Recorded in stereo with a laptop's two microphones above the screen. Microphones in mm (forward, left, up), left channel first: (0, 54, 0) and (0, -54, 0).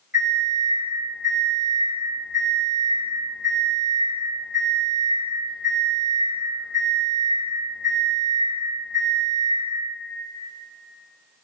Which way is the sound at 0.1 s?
10° right (ahead or behind).